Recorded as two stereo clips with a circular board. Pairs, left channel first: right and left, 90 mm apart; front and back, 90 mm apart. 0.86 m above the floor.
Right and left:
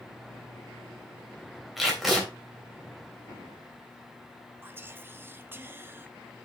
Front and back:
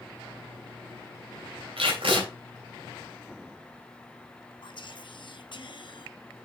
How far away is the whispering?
About 0.9 m.